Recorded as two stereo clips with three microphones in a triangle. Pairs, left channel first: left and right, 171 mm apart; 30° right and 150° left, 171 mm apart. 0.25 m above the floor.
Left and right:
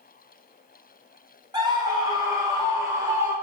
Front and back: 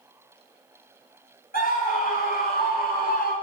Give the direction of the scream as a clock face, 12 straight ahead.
1 o'clock.